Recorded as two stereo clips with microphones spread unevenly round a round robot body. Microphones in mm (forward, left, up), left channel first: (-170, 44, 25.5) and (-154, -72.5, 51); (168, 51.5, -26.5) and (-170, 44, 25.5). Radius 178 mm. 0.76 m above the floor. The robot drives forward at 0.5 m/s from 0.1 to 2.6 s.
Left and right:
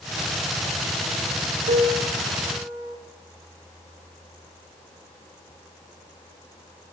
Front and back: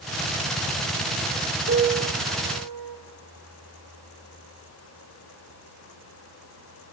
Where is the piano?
110° right, 0.7 m; by 3.0 s 135° right, 1.0 m.